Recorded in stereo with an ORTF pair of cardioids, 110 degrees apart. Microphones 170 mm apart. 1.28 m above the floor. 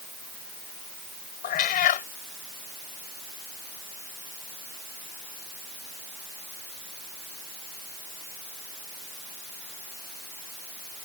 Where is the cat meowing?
60° left.